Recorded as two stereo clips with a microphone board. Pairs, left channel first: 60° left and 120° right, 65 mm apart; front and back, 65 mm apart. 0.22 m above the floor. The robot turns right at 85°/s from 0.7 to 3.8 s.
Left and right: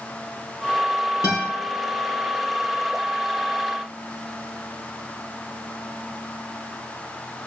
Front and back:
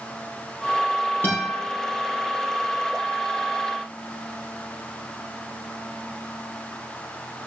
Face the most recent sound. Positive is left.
turn(degrees=-85)